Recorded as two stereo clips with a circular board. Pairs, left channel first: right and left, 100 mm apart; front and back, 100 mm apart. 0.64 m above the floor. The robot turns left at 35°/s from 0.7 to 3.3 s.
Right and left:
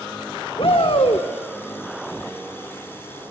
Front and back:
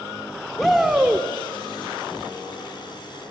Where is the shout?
90° right, 1.3 m; by 1.3 s 110° right, 1.3 m.